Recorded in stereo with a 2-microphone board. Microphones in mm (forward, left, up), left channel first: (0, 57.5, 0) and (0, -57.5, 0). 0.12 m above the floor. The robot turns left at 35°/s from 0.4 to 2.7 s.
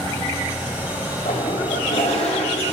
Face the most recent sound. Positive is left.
turn(degrees=60)